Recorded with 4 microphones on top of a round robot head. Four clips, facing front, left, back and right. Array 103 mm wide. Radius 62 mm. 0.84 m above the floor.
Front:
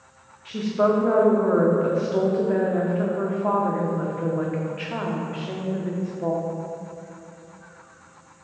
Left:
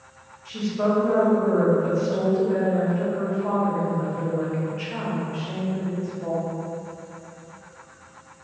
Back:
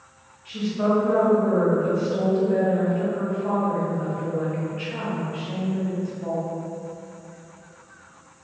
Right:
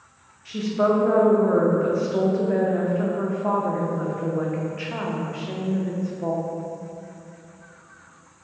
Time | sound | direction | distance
0.5 | a woman speaking | 30° right | 0.6 m